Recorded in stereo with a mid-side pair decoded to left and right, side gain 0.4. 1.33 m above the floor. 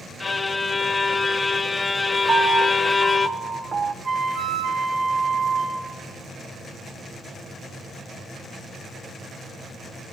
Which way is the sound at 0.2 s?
30° left.